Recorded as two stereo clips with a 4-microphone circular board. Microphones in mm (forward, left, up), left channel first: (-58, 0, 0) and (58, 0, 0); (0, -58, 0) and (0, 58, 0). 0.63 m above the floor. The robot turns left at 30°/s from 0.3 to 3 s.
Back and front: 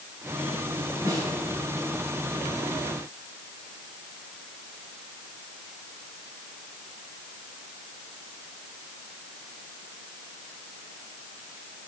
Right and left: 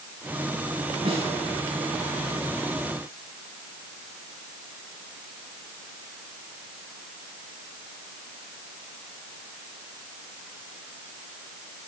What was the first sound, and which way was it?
A snare drum, 65° left.